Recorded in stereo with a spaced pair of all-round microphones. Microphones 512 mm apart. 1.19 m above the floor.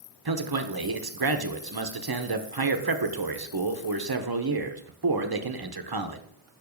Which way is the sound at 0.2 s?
45° right (ahead or behind).